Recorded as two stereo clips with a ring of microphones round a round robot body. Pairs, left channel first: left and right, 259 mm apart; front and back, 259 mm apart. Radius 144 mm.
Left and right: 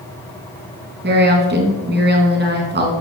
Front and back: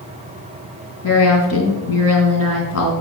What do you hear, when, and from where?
1.0 s a woman speaking: 40° right, 3.5 m